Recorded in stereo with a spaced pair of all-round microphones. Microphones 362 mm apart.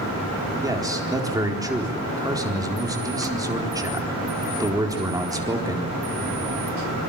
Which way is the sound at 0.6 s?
10° right (ahead or behind).